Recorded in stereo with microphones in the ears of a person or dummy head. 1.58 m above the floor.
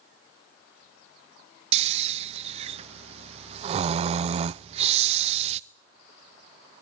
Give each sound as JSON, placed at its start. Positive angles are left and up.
{"t": 1.7, "sound": "snoring", "side_deg": -40, "distance_m": 0.5}